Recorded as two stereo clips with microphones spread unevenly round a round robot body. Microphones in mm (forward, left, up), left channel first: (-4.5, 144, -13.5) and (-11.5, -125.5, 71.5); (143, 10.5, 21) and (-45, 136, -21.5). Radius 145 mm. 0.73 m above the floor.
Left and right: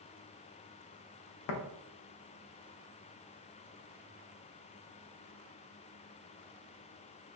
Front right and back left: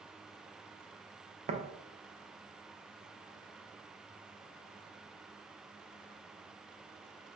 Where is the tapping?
90° left, 0.5 m.